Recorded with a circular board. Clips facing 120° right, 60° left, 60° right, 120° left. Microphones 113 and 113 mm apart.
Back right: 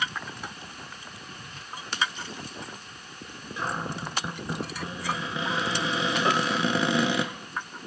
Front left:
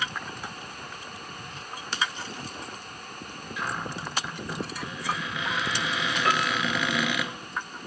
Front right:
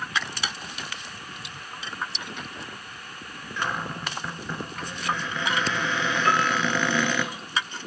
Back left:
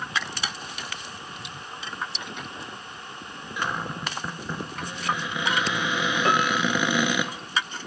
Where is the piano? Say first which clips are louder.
Front left 1 dB, even; 175° left, 0.5 m.